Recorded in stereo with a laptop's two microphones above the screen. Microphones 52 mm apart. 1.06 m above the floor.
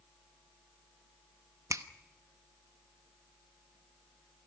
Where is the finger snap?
90° right, 0.9 m.